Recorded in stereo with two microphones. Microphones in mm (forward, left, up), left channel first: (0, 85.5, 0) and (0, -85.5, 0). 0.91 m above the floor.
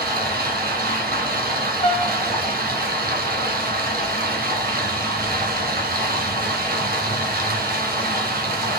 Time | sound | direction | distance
0.0 | running water | 60° right (ahead or behind) | 2.0 m
1.8 | a piano | 35° left (ahead or behind) | 0.9 m